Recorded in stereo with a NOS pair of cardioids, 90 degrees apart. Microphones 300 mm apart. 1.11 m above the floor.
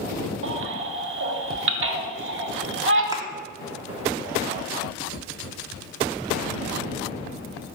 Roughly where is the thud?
Ahead.